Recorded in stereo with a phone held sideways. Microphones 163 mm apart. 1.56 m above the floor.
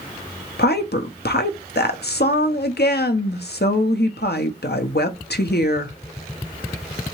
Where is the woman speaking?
80° left, 0.7 m.